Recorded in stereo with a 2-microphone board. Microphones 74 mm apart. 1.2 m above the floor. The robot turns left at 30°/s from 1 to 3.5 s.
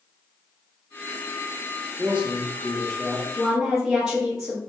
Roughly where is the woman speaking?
Centre.